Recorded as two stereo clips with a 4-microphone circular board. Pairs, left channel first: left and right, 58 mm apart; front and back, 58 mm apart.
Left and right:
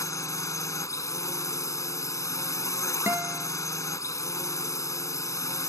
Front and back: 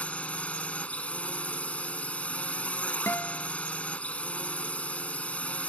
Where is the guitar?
45° right.